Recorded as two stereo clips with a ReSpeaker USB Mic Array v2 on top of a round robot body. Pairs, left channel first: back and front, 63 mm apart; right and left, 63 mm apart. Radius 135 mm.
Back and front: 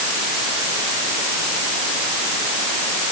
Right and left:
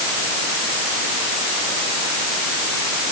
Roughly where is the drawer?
I don't hear a drawer.